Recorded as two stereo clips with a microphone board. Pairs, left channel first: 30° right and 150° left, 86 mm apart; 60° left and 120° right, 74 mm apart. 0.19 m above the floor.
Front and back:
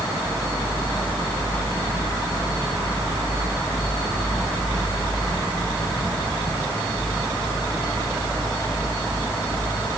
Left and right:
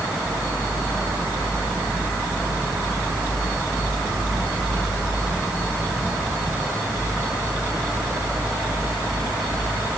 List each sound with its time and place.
Only background noise.